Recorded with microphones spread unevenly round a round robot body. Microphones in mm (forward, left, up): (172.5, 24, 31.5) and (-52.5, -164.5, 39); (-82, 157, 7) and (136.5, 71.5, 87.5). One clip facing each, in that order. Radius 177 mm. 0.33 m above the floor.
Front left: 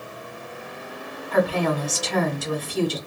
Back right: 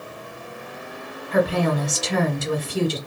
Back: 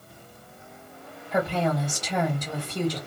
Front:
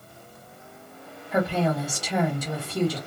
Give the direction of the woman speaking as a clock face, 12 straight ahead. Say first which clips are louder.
Back right 1 dB, front 1 dB; 5 o'clock.